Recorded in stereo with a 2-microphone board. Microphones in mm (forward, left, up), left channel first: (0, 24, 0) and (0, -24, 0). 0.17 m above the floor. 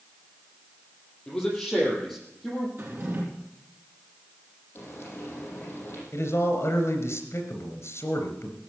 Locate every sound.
1.3 s a man speaking: 15° left (ahead or behind), 5.5 m; by 2.7 s centre (ahead or behind), 6 m
2.8 s a drawer: 45° right (ahead or behind), 3.5 m
4.8 s frying: 45° left (ahead or behind), 6.5 m
6.1 s a man speaking: 60° left (ahead or behind), 3 m